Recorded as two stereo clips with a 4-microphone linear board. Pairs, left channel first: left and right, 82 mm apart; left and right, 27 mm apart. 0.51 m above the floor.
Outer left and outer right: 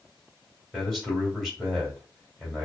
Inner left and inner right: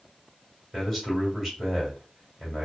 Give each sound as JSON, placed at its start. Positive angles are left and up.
{"t": 0.7, "sound": "a man speaking", "side_deg": -5, "distance_m": 1.7}